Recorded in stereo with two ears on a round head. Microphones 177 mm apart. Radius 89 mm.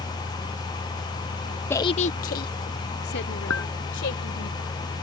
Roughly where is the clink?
Left.